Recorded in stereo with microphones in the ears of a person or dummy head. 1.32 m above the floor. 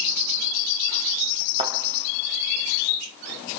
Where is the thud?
30° right (ahead or behind), 3 m.